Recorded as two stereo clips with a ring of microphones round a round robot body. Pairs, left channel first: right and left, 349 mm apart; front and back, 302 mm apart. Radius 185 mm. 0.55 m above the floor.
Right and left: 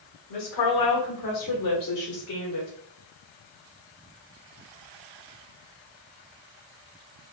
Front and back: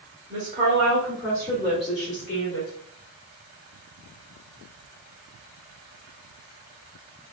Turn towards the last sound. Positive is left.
turn(degrees=-45)